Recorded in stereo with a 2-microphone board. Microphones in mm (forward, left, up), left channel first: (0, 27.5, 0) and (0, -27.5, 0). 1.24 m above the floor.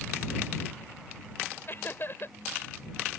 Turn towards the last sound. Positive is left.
turn(degrees=45)  # may be behind; listen again after turning